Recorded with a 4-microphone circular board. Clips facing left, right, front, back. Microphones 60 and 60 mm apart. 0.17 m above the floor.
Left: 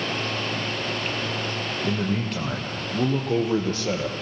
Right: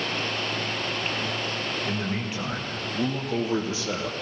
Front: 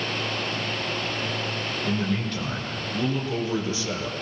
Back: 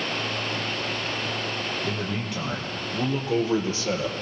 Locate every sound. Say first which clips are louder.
1.8 s a man speaking: left 3 dB, front 3 dB; 105° left, 6.5 m; by 4.1 s 125° left, 4 m